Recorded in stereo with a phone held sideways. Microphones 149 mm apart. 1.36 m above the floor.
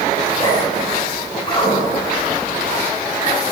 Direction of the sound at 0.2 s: 30° left (ahead or behind).